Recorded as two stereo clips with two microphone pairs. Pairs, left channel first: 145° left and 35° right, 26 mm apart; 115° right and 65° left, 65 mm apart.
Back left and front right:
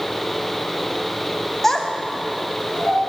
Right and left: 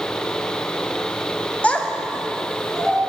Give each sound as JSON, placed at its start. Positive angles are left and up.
{"t": 1.6, "sound": "a child speaking", "azimuth_deg": -150, "distance_m": 0.7}